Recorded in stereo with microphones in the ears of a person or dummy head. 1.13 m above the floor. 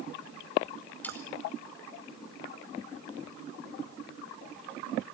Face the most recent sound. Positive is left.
turn(degrees=5)  # may be behind; listen again after turning